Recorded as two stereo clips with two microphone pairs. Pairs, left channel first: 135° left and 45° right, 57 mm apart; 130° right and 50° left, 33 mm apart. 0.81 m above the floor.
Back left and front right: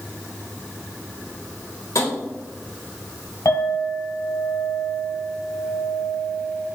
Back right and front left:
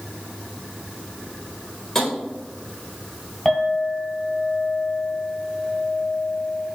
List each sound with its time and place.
1.9 s tapping: 150° left, 1.8 m
3.5 s a clink: 150° left, 1.9 m